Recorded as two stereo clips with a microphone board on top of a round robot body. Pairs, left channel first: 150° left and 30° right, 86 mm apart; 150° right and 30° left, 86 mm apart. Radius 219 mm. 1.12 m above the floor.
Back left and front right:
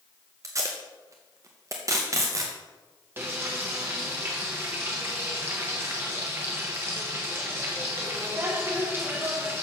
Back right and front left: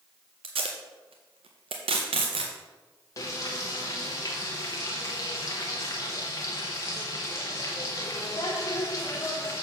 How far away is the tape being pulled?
About 0.6 m.